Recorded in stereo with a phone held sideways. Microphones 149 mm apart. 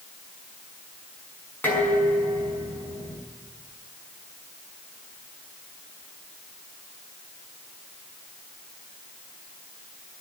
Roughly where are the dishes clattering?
Centre.